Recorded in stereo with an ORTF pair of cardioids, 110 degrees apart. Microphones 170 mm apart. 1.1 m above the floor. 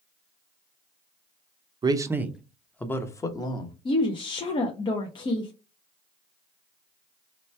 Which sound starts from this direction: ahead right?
A man speaking, at 1.8 s.